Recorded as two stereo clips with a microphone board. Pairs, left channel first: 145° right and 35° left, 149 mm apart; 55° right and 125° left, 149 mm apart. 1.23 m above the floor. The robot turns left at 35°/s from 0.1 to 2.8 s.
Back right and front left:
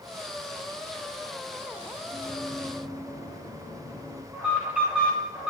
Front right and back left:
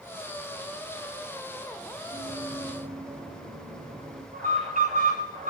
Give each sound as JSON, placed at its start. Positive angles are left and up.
{"t": 2.1, "sound": "running footsteps", "azimuth_deg": 150, "distance_m": 8.5}
{"t": 4.3, "sound": "an alarm", "azimuth_deg": 120, "distance_m": 10.0}